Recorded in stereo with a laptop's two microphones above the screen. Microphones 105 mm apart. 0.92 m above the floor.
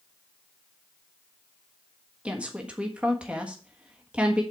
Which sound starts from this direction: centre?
A woman speaking, at 2.2 s.